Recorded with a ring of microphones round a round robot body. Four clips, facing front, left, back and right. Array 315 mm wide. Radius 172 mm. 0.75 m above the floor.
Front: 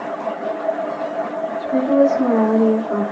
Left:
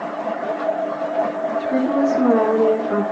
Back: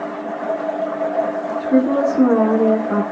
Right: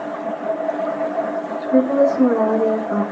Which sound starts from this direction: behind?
A woman speaking, at 1.6 s.